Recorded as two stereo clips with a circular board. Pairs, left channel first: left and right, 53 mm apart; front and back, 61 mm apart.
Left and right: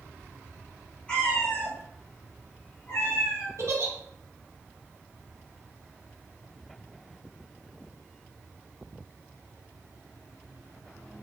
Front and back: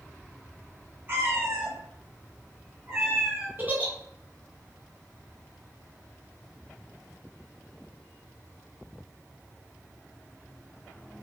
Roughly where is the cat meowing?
Behind left.